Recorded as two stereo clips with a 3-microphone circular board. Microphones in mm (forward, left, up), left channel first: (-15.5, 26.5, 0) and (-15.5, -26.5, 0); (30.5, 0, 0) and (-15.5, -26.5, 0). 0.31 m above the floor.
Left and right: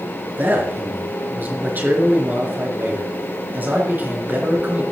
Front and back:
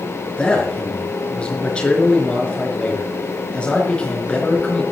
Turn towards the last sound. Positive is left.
turn(degrees=-40)